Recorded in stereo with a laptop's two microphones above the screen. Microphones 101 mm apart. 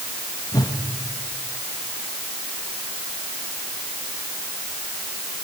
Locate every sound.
0.5 s a whoosh: 40° left (ahead or behind), 1.8 m